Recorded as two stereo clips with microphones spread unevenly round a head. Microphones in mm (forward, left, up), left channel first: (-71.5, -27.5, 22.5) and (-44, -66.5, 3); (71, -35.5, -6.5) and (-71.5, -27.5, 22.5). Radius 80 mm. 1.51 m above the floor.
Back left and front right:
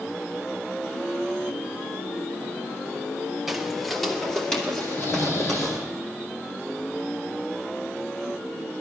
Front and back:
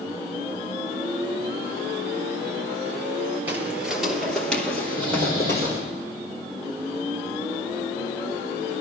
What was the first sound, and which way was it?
Footsteps, 165° left.